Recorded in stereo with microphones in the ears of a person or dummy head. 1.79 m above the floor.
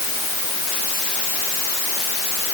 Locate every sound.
Only background noise.